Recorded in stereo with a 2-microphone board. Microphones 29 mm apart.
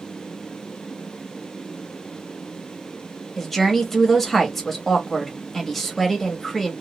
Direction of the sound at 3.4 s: 5° left (ahead or behind).